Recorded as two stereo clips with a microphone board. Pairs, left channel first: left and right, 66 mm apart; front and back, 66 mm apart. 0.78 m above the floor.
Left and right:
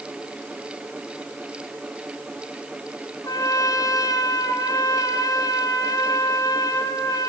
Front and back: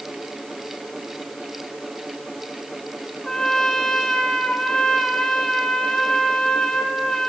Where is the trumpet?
80° left, 3 m.